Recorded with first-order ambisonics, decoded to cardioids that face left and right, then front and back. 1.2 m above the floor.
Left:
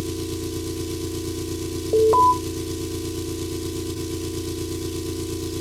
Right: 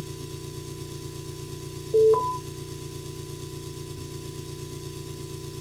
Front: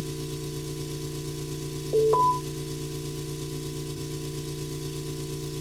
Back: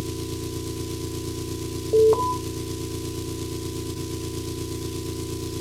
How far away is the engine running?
About 1.1 m.